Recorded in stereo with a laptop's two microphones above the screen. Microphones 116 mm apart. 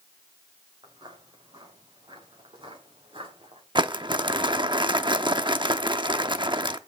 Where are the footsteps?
40° right (ahead or behind), 8 m; by 3.6 s 50° right (ahead or behind), 7 m.